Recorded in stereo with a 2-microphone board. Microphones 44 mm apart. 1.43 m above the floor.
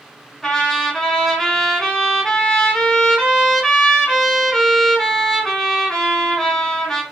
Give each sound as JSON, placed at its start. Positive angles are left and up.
{"t": 0.4, "sound": "a trumpet", "side_deg": 10, "distance_m": 1.9}